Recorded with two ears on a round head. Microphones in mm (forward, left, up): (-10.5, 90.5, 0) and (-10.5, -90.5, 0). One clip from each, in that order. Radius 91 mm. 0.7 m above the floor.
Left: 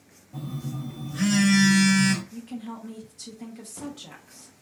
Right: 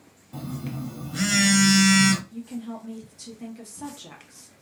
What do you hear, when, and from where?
0.3 s a phone buzzing: 45° right (ahead or behind), 0.9 m
2.3 s a woman speaking: 5° left (ahead or behind), 0.9 m